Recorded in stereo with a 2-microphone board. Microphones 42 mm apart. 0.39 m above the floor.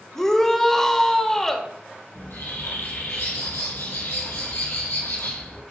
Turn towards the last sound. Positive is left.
turn(degrees=80)